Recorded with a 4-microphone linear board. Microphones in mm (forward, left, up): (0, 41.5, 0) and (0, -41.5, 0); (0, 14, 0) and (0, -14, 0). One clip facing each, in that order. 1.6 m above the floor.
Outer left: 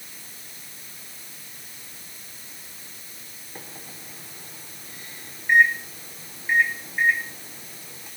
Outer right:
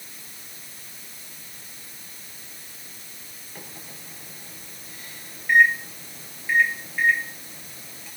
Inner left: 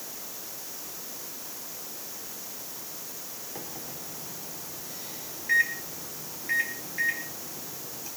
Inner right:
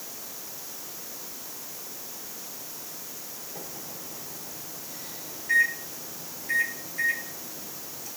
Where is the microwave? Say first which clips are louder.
Outer left 1 dB, inner left 1 dB; 20° left (ahead or behind), 5 m.